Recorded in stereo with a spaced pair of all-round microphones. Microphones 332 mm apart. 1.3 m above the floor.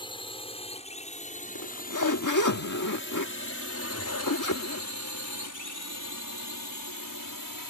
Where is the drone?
15° left (ahead or behind); by 7.7 s 75° left (ahead or behind).